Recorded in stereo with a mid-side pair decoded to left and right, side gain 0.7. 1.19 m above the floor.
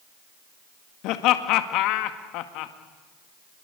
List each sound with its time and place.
1.0 s laughter: 60° left, 2 m